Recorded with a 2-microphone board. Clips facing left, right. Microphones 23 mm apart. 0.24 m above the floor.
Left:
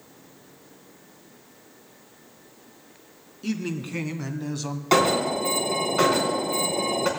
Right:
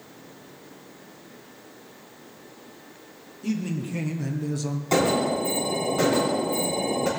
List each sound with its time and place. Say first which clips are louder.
3.4 s a man speaking: right 1 dB; 40° left (ahead or behind), 2.5 m; by 4.8 s 25° left (ahead or behind), 1.2 m
4.9 s an alarm: left 2 dB; 40° left (ahead or behind), 4 m